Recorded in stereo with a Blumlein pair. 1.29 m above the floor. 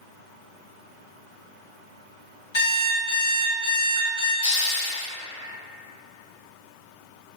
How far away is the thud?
No thud in this recording.